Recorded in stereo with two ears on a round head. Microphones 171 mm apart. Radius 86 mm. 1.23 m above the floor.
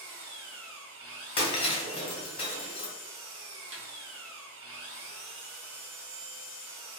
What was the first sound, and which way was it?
An engine running, 85° right.